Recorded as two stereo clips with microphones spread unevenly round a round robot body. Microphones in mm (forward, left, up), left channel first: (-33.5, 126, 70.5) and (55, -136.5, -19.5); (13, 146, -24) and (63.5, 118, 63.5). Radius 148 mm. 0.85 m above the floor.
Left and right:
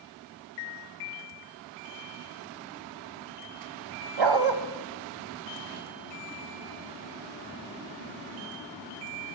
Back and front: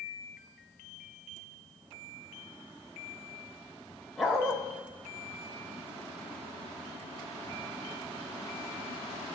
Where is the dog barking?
65° right, 1.0 m.